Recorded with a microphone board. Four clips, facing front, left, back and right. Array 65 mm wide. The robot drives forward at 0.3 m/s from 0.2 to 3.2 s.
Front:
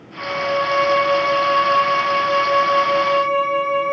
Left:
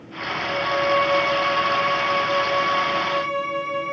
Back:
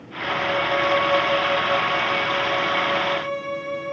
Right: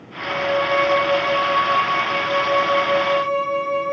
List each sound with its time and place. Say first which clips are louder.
0.2 s a violin: right 5 dB, front 3 dB; straight ahead, 4.5 m